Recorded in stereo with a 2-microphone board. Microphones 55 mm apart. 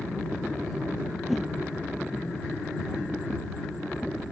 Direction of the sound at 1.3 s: 5° right (ahead or behind).